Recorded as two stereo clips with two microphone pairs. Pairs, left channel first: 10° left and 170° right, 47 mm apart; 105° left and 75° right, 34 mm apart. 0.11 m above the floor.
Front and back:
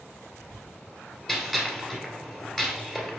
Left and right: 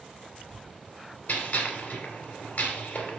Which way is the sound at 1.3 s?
95° left.